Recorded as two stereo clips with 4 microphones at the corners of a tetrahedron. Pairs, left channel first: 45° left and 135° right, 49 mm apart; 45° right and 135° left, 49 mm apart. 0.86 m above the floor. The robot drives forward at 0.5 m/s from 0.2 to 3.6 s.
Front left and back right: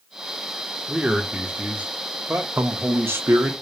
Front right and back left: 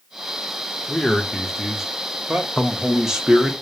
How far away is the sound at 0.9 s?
About 0.8 m.